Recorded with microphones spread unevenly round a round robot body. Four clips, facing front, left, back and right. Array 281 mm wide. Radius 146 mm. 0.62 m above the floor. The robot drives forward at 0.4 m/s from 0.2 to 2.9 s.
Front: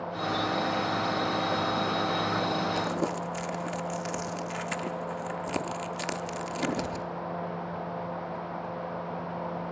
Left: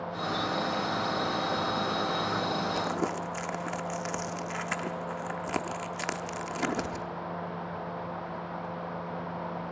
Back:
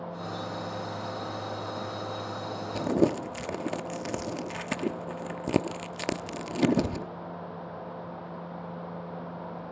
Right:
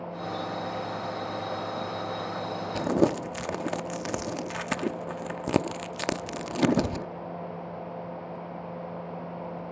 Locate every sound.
2.8 s crumpling: 135° right, 0.8 m; by 7.1 s 140° right, 0.8 m